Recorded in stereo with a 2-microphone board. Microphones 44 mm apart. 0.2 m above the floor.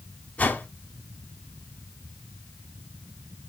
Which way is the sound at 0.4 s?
35° left (ahead or behind).